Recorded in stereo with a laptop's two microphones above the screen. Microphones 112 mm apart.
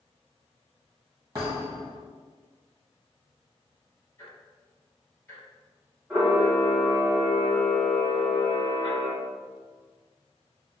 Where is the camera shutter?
15° right (ahead or behind), 1.3 m.